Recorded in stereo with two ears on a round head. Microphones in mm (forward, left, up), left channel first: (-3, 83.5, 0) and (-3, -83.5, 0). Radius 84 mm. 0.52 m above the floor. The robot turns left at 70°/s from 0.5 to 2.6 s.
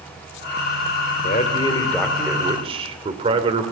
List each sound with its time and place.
1.2 s a man speaking: 60° left, 2 m; by 3.7 s 35° right, 2 m